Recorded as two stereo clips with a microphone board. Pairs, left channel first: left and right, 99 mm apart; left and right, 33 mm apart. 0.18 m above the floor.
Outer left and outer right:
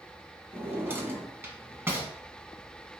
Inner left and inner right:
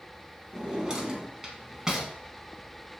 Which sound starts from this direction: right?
A drawer, at 0.5 s.